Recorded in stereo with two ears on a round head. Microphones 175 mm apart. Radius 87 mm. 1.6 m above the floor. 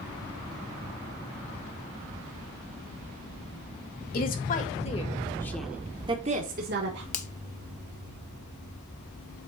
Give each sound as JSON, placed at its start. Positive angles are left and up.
{"t": 4.1, "sound": "a woman speaking", "side_deg": 50, "distance_m": 2.0}
{"t": 7.1, "sound": "a finger snap", "side_deg": 40, "distance_m": 1.0}